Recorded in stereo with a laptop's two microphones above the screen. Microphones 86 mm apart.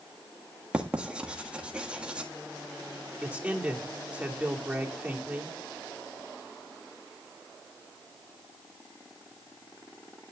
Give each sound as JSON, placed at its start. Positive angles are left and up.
{"t": 0.7, "sound": "writing", "side_deg": -10, "distance_m": 1.6}
{"t": 3.2, "sound": "a man speaking", "side_deg": -15, "distance_m": 3.0}